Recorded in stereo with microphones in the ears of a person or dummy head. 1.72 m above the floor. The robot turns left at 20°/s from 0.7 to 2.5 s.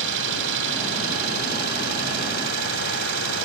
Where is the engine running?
70° right; by 3.5 s 105° right.